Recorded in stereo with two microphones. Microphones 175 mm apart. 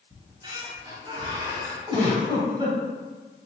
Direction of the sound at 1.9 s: 25° right (ahead or behind).